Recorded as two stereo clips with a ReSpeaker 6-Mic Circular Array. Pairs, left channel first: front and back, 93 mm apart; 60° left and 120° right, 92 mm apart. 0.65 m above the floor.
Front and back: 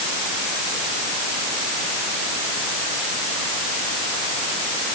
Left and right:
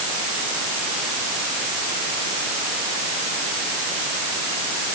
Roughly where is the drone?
No drone in this recording.